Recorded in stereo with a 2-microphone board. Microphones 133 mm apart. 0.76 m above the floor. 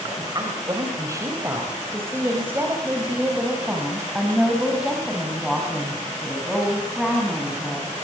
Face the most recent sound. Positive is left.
turn(degrees=5)  # may be behind; listen again after turning